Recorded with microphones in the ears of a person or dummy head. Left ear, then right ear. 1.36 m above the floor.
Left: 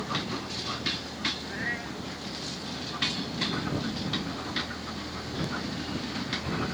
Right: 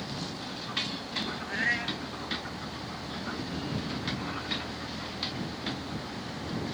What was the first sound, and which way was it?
A cat meowing, 65° right (ahead or behind).